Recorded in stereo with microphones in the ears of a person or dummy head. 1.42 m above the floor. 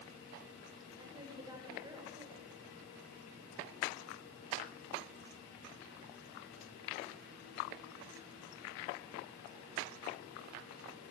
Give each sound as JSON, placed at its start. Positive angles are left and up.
{"t": 1.0, "sound": "a woman speaking", "side_deg": -20, "distance_m": 6.5}